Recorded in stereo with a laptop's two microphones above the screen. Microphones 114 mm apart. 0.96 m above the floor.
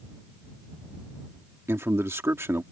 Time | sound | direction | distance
1.7 | a man speaking | 25° right (ahead or behind) | ?